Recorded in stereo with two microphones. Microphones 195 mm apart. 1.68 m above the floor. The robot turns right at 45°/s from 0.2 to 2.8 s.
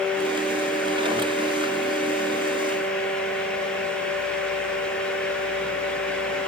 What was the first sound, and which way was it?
Only background noise.